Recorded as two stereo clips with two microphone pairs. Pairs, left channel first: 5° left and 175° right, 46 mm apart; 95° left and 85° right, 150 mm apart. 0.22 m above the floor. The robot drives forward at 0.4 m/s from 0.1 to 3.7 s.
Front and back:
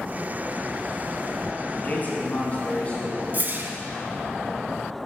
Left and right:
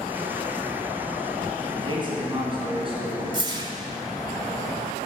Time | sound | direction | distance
1.8 | a man speaking | 40° right | 2.5 m
3.3 | a whoosh | 135° right | 0.7 m